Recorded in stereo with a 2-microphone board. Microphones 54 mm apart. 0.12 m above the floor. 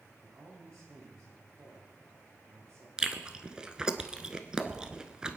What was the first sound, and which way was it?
A man speaking, 80° right.